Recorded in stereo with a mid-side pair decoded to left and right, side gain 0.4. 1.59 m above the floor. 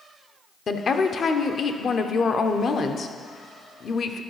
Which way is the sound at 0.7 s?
50° left.